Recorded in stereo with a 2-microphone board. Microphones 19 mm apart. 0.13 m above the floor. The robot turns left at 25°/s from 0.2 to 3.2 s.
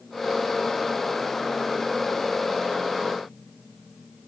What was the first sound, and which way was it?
Only background noise.